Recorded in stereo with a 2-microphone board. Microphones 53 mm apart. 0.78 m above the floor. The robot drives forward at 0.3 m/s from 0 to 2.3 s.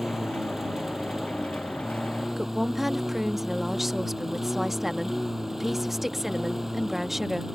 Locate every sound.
0.0 s a lawn mower: 10° right (ahead or behind)
2.4 s a woman speaking: 5° right (ahead or behind)